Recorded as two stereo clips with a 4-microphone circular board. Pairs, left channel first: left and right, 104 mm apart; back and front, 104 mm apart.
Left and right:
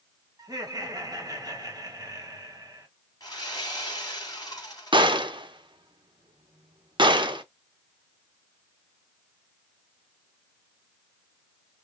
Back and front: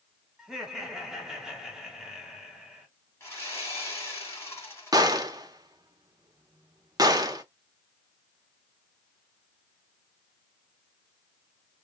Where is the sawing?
125° left, 1.7 m.